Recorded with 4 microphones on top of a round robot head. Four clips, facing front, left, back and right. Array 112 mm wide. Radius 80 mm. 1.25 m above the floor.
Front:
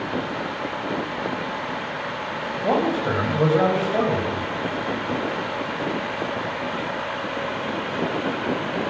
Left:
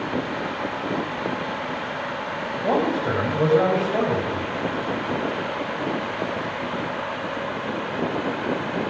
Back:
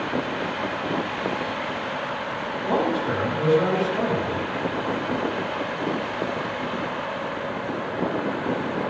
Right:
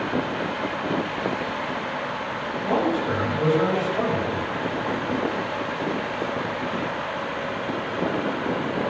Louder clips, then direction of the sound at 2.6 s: Left 1 dB, front 2 dB; 35° left.